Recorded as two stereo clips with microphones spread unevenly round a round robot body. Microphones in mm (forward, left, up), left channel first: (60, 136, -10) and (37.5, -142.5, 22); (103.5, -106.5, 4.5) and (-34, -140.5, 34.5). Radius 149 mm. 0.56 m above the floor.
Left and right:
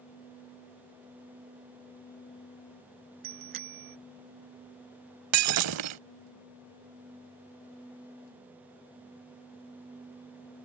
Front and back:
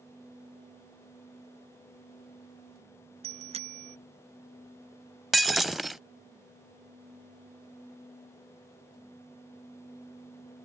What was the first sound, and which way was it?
A bicycle bell, 125° right.